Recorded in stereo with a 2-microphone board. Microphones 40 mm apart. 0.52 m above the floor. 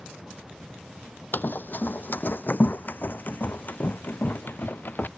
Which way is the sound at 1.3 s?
50° left (ahead or behind).